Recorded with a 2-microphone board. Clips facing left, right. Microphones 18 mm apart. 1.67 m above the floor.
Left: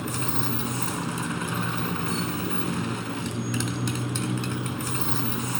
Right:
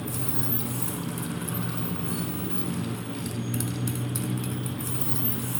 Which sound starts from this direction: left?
A motorcycle, at 0.0 s.